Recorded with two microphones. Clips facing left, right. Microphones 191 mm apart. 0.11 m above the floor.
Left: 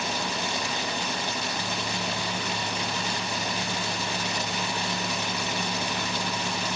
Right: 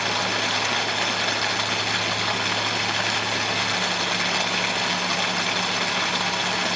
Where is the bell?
No bell in this recording.